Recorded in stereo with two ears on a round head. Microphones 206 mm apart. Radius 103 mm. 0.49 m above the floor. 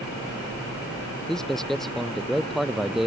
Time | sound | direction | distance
1.3 | a man speaking | centre (ahead or behind) | ?